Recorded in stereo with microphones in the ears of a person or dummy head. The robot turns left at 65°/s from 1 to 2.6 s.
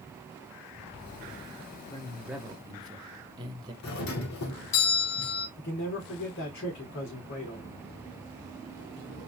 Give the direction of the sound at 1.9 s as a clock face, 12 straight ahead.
11 o'clock.